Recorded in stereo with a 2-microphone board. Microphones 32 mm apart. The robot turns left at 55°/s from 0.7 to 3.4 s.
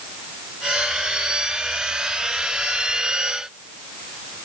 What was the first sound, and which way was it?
Only background noise.